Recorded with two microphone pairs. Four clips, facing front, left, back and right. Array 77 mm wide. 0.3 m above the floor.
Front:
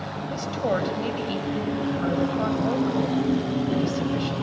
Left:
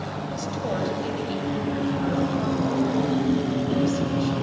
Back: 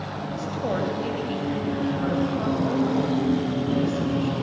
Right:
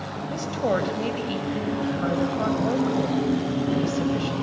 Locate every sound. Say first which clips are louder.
0.3 s a woman speaking: right 5 dB, front 2 dB; 50° right, 1.6 m